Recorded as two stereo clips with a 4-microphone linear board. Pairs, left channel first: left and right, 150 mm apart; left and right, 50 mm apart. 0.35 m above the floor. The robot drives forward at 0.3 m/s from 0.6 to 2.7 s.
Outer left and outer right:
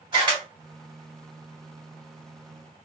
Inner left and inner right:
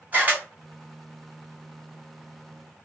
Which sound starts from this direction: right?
A camera shutter, at 0.1 s.